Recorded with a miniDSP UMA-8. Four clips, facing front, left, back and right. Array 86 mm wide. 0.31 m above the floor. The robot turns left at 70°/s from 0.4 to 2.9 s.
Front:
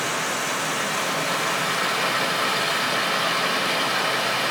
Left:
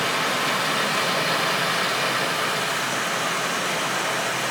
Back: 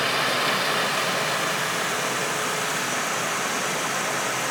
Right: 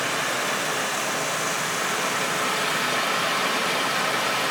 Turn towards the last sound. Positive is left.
turn(degrees=-10)